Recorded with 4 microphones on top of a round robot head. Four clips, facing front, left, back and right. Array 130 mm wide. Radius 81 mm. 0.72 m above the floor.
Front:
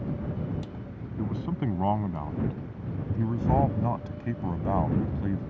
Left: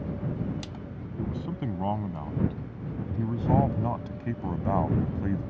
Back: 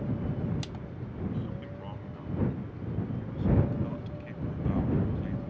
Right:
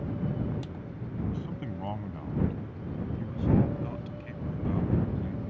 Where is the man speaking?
10° left; by 5.5 s 60° left.